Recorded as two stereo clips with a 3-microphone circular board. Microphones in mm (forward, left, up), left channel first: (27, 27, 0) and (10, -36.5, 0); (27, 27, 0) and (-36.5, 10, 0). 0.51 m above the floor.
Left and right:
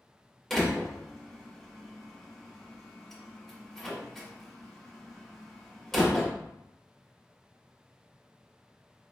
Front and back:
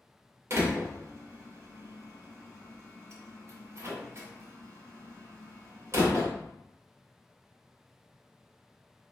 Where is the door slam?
160° left, 1.3 m.